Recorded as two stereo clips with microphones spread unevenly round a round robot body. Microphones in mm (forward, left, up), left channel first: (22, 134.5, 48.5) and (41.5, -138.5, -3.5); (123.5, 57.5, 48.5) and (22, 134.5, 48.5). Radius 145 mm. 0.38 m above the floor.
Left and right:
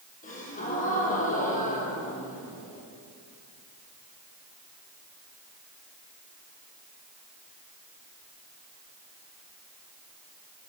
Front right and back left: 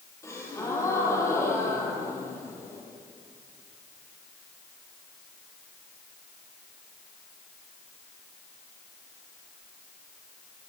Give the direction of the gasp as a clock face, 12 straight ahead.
11 o'clock.